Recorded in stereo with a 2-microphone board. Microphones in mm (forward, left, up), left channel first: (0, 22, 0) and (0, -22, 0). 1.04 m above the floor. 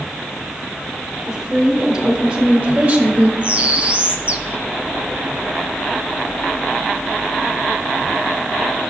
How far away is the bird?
About 0.7 m.